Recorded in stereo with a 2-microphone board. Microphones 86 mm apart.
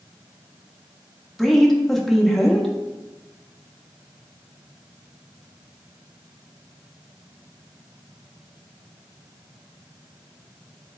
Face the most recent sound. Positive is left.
turn(degrees=0)  # may be behind; listen again after turning